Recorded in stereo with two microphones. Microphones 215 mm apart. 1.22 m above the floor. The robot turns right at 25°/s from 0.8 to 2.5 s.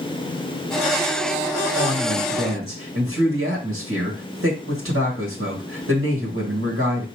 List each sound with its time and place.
1.8 s a woman speaking: 60° right (ahead or behind), 1.9 m; by 7.0 s 70° right (ahead or behind), 1.9 m